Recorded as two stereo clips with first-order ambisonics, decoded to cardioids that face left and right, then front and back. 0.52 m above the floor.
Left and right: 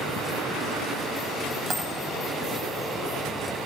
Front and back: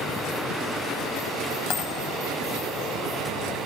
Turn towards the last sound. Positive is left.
turn(degrees=-30)